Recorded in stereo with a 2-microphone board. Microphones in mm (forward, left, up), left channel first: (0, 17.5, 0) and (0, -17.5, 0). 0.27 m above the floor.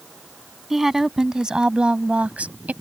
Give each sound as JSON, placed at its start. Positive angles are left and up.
{"t": 0.7, "sound": "a woman speaking", "side_deg": -10}